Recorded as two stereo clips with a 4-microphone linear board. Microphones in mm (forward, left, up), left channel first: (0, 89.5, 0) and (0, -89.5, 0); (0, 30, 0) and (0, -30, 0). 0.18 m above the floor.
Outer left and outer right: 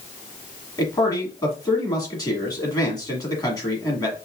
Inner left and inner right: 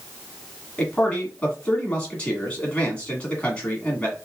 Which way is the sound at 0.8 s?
20° left (ahead or behind).